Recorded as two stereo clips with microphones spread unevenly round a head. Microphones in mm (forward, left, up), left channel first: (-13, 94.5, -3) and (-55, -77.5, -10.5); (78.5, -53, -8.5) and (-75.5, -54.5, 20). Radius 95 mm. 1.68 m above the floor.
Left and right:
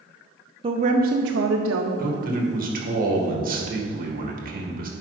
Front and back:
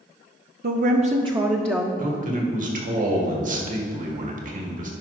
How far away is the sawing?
I don't hear sawing.